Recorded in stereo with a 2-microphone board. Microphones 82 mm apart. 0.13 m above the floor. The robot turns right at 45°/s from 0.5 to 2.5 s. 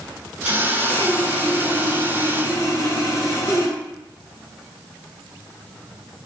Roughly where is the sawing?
Ahead.